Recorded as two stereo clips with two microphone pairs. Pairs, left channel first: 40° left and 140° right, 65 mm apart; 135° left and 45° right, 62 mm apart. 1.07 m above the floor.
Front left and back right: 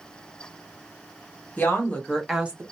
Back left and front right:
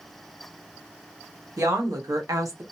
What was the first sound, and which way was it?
A woman speaking, 20° right.